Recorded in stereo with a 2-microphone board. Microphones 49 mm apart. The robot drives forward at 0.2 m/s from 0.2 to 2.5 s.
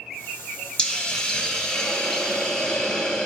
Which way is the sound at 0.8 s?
20° left (ahead or behind).